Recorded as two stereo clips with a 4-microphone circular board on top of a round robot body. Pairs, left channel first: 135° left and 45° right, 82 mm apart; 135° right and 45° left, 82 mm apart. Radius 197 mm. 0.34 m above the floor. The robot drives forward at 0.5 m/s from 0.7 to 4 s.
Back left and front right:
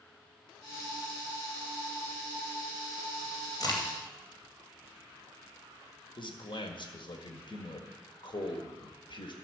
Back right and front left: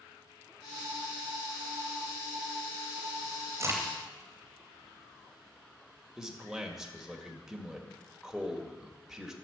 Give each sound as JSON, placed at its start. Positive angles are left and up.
{"t": 3.6, "sound": "a crack", "azimuth_deg": 100, "distance_m": 3.0}
{"t": 6.2, "sound": "a man speaking", "azimuth_deg": 130, "distance_m": 2.0}